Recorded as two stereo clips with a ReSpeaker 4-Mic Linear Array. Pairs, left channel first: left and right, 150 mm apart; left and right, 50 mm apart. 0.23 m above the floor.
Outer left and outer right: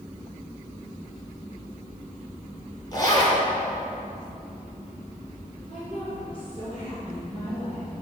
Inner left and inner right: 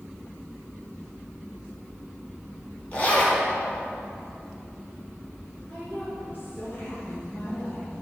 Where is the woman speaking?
40° left (ahead or behind), 3 m.